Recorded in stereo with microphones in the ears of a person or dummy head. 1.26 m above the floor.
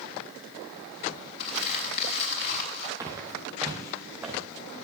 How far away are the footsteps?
About 3.5 m.